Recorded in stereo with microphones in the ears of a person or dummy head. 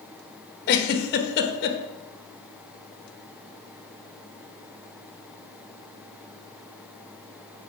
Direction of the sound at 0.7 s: 60° left (ahead or behind).